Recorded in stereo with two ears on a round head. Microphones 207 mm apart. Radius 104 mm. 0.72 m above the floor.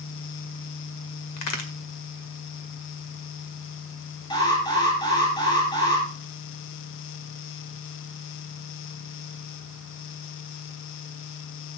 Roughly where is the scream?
No scream in this recording.